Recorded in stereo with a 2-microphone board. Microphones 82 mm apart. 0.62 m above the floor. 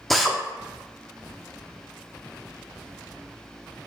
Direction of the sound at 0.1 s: Centre (ahead or behind).